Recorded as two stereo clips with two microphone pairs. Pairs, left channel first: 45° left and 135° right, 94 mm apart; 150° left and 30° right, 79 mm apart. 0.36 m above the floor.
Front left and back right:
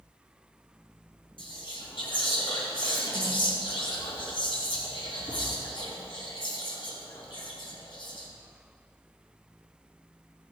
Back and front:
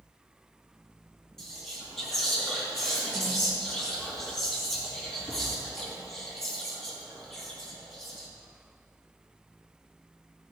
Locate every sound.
1.4 s whispering: 65° left, 4 m